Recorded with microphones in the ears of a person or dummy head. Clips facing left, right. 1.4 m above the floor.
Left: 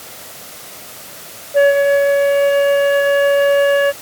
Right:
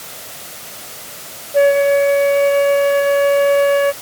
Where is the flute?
10° left (ahead or behind).